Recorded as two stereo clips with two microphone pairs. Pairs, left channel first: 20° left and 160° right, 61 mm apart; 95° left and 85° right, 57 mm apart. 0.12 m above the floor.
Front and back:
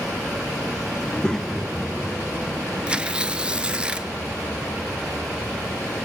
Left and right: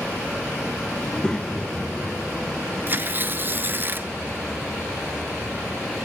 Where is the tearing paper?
90° right, 0.9 m.